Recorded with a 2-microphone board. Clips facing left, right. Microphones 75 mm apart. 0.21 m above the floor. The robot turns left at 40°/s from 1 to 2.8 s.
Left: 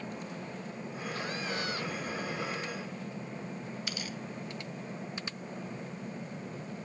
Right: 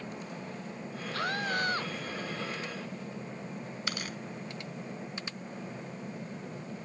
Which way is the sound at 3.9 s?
55° right (ahead or behind).